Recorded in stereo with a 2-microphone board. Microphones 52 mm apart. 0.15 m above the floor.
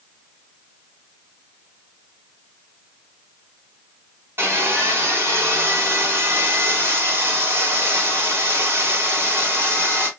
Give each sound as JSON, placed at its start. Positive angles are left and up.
{"t": 4.4, "sound": "sawing", "side_deg": -50, "distance_m": 3.0}